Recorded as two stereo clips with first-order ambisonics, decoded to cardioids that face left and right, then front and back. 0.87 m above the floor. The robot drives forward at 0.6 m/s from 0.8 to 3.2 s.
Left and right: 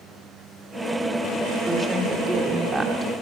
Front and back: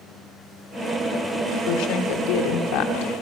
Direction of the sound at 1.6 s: 10° right.